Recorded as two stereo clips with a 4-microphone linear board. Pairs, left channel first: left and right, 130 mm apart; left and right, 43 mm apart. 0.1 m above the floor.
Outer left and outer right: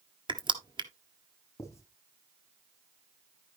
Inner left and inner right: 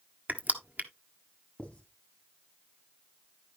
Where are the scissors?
I don't hear scissors.